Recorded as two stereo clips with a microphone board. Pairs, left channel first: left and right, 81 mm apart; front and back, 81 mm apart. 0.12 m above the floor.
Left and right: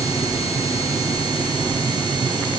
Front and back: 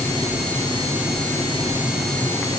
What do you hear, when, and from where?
Only background noise.